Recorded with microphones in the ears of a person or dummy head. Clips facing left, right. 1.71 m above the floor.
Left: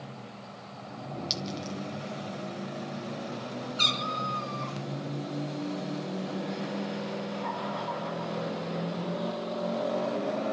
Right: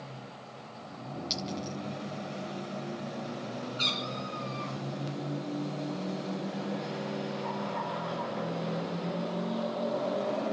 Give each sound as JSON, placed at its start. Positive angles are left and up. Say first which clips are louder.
{"t": 1.3, "sound": "a clink", "louder": "right 2 dB", "side_deg": 15, "distance_m": 1.8}
{"t": 3.8, "sound": "a cat meowing", "louder": "left 2 dB", "side_deg": 70, "distance_m": 5.5}